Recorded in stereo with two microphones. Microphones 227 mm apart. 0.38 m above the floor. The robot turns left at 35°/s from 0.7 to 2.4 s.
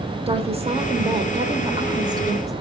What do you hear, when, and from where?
0.3 s a woman speaking: 25° right (ahead or behind), 0.9 m; by 2.5 s 15° right (ahead or behind), 0.9 m